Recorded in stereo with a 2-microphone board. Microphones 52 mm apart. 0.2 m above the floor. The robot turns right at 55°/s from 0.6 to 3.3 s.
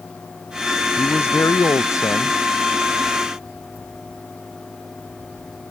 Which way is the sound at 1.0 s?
40° left.